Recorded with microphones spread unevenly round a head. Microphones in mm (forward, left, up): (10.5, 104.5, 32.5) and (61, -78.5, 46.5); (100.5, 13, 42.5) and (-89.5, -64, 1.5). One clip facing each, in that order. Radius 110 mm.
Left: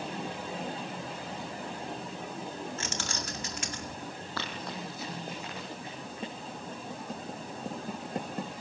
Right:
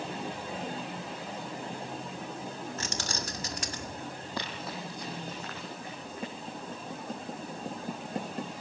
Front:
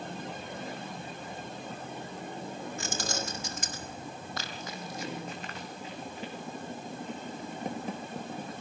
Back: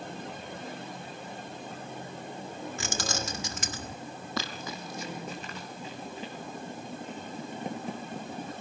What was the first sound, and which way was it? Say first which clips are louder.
Keys jangling: right 1 dB, back 1 dB; 135° right.